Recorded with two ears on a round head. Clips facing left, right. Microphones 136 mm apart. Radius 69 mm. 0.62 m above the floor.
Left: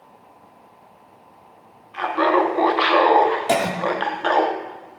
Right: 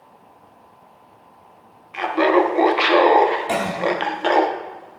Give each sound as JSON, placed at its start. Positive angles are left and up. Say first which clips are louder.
{"t": 1.9, "sound": "laughter", "louder": "right 2 dB", "side_deg": -20, "distance_m": 0.6}
{"t": 3.5, "sound": "a cough", "louder": "left 2 dB", "side_deg": 50, "distance_m": 1.2}